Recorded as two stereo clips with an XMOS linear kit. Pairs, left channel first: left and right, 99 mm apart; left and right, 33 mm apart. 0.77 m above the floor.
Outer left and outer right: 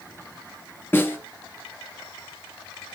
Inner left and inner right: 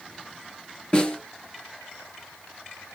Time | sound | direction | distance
0.9 | a snare drum | 25° left (ahead or behind) | 3.5 m